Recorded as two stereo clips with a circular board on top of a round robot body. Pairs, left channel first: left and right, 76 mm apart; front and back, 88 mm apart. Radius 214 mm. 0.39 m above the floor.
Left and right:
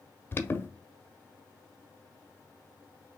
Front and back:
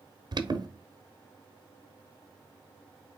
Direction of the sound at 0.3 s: 150° left.